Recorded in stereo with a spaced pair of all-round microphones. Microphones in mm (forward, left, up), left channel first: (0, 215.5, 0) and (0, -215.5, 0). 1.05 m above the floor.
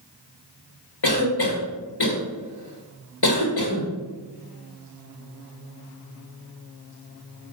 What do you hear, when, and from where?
1.0 s a cough: 70° left (ahead or behind), 1.7 m